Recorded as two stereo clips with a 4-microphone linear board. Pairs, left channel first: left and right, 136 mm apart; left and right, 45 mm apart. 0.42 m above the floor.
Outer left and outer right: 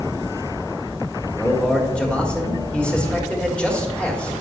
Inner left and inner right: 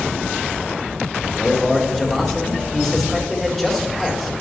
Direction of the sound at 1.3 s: 10° left (ahead or behind).